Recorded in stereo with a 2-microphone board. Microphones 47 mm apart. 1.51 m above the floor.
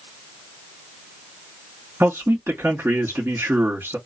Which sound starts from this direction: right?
A man speaking, at 2.0 s.